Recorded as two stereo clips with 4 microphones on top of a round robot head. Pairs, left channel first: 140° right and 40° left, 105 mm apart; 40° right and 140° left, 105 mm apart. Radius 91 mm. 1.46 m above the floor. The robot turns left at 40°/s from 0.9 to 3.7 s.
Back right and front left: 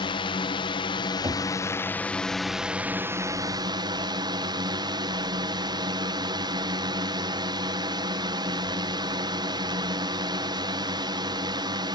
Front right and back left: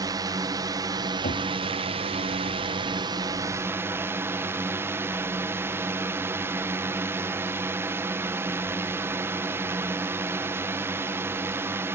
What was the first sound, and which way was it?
A drone, 170° right.